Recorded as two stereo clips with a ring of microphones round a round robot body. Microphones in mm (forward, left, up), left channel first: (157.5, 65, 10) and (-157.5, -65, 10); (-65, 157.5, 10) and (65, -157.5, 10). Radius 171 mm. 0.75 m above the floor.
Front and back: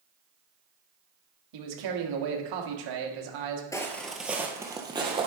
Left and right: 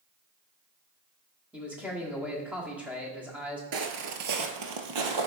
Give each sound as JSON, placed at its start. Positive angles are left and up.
{"t": 1.5, "sound": "a man speaking", "azimuth_deg": -155, "distance_m": 1.4}
{"t": 3.7, "sound": "footsteps", "azimuth_deg": -50, "distance_m": 0.8}